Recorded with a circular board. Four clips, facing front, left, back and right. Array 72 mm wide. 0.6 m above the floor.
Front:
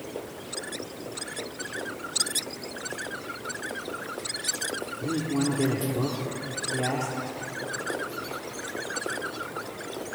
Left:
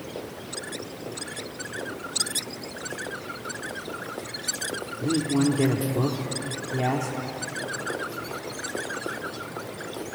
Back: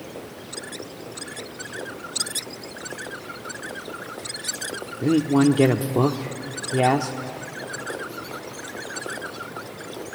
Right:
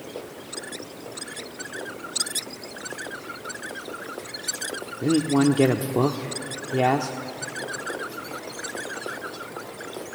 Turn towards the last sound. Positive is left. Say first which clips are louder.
# right 4 dB, back 10 dB
turn(degrees=-145)